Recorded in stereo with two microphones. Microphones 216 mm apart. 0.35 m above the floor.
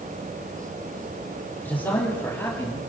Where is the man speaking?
10° left (ahead or behind), 7.5 m.